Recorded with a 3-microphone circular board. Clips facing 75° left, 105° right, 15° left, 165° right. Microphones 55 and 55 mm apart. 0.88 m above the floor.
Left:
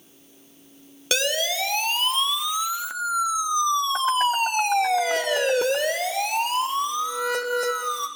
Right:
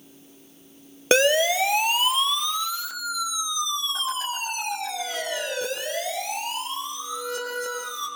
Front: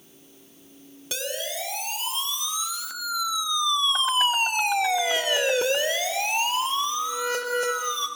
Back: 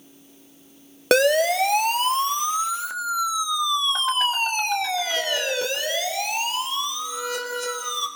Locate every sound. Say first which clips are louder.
1.1 s a siren: right 6 dB, back 15 dB; 160° right, 2 m; by 8.1 s 75° left, 5.5 m